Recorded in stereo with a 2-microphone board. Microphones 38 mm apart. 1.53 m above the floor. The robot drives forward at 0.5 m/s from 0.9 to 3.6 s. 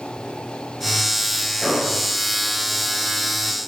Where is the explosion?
15° right (ahead or behind), 5.5 m.